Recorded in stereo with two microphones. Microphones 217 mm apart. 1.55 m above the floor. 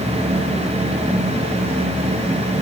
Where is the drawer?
I don't hear a drawer.